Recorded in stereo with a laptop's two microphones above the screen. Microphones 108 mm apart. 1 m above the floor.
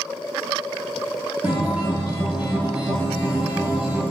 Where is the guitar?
15° right (ahead or behind), 1.3 m.